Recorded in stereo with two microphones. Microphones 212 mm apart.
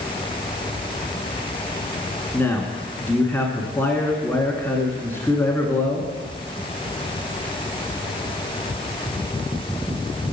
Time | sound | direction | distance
2.3 | a man speaking | 10° left (ahead or behind) | 1.0 m